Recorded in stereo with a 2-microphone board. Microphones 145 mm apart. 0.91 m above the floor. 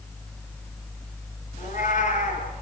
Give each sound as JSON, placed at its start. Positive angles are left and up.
{"t": 1.6, "sound": "a cat meowing", "side_deg": 65, "distance_m": 5.0}